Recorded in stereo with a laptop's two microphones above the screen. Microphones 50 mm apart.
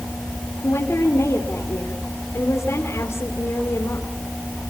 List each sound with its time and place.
0.6 s a woman speaking: 80° left, 3 m